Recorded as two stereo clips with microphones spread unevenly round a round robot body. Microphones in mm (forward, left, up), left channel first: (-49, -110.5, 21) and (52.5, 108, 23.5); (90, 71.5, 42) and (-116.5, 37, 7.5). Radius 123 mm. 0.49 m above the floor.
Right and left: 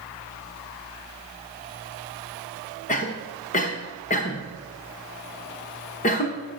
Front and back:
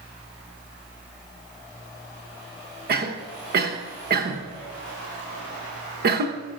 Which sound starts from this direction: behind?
A cough, at 2.9 s.